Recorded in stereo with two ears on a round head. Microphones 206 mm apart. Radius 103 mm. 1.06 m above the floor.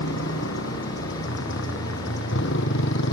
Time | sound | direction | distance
0.0 | a motorcycle | 60° left (ahead or behind) | ?